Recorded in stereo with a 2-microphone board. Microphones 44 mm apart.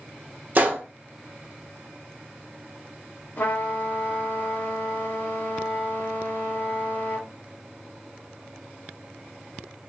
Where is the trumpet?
50° left (ahead or behind), 0.9 m.